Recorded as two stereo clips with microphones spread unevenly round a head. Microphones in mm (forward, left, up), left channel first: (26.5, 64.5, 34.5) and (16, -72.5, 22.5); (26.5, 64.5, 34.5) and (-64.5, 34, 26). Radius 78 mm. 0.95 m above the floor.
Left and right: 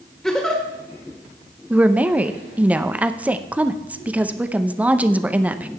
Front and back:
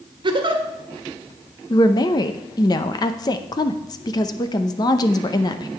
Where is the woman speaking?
20° right, 0.7 m.